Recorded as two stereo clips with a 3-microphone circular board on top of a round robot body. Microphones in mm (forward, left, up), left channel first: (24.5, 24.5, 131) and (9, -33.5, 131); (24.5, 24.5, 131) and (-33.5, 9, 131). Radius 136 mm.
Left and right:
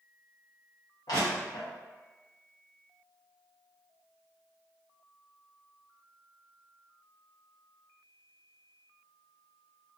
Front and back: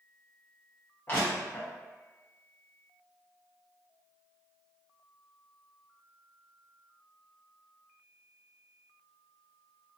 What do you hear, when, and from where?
1.1 s crushing: 75° left, 0.5 m